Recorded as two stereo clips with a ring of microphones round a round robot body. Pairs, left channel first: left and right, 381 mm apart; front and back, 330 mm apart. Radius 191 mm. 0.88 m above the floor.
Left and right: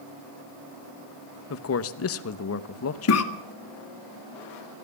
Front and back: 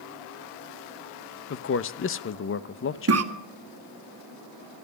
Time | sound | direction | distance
1.5 | a man speaking | 45° left | 0.9 m
3.1 | a cough | 140° left | 1.9 m